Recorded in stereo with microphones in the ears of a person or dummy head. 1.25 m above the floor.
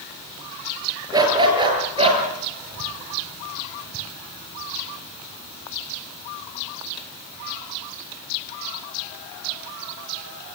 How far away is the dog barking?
About 5.5 m.